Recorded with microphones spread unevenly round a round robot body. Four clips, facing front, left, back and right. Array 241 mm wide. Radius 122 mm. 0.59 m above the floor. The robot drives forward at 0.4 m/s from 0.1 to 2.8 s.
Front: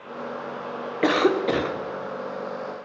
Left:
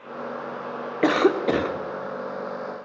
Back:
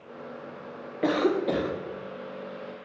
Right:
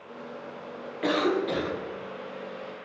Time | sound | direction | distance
1.0 | a cough | 60° left | 1.6 m